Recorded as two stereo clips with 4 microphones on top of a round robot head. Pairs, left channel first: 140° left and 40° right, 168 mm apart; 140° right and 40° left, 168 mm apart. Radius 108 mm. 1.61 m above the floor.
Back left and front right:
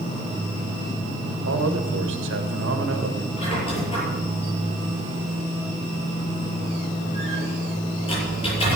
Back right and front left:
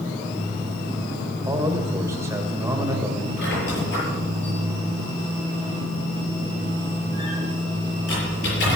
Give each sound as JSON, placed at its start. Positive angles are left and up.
{"t": 1.4, "sound": "a man speaking", "azimuth_deg": -35, "distance_m": 1.9}
{"t": 3.4, "sound": "a squeak", "azimuth_deg": -160, "distance_m": 7.0}